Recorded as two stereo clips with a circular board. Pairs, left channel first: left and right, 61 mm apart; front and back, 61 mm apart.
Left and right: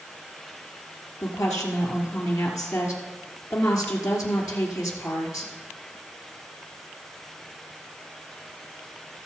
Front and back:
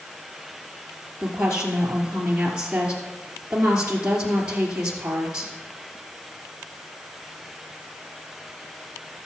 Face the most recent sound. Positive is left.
turn(degrees=110)